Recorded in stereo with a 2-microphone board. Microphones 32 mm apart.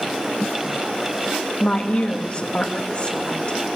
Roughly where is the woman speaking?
Left.